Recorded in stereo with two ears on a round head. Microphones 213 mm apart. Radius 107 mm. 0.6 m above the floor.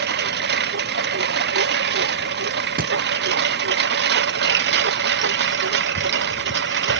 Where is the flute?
No flute in this recording.